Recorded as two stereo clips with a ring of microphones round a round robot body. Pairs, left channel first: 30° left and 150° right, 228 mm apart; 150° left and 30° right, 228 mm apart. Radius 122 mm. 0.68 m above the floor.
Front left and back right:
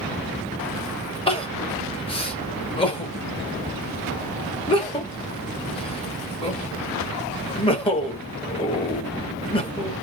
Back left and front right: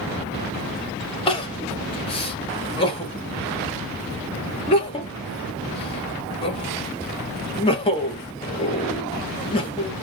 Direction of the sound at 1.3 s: 90° left.